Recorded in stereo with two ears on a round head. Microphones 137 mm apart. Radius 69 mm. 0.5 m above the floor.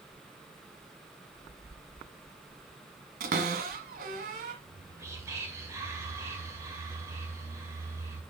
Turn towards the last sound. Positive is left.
turn(degrees=-20)  # may be behind; listen again after turning